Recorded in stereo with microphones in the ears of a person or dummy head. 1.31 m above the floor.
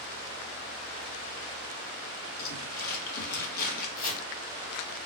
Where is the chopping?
45° left (ahead or behind), 1.5 m.